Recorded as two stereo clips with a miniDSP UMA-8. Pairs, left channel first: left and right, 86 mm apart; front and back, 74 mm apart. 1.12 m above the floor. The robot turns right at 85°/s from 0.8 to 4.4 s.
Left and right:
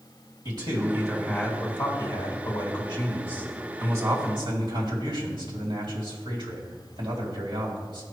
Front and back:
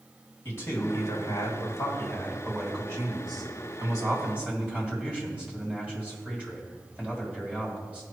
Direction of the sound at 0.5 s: 55° right.